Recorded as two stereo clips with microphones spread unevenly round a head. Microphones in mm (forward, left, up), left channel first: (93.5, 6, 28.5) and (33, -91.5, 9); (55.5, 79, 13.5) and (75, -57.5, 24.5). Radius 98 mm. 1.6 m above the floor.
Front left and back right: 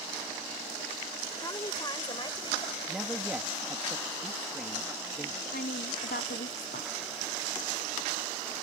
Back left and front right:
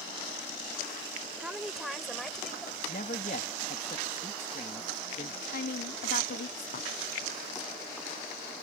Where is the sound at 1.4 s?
Straight ahead; by 2.8 s 15° left.